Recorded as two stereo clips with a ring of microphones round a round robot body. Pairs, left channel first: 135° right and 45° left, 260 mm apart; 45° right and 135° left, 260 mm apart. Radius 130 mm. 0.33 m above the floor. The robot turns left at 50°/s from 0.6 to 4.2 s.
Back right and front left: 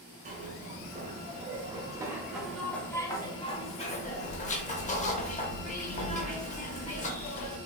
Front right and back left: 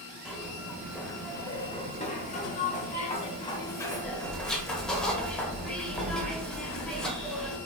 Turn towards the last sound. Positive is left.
turn(degrees=-130)